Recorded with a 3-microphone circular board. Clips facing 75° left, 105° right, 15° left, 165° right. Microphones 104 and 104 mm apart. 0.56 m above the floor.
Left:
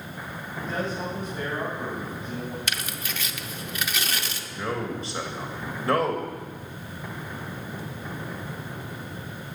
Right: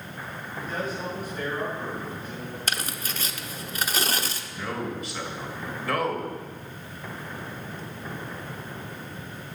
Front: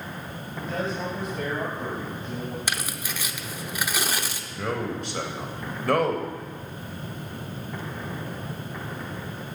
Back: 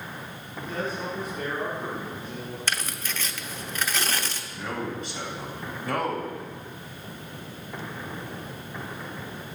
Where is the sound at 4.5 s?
20° left, 2.5 m.